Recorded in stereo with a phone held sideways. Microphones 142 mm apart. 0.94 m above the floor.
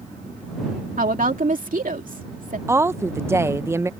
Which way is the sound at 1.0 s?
70° right (ahead or behind).